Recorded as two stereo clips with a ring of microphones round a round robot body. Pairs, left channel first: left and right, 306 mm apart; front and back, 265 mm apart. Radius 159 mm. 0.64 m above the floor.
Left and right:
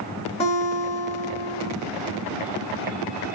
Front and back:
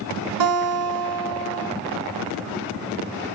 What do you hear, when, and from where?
0.4 s a guitar: 165° left, 1.3 m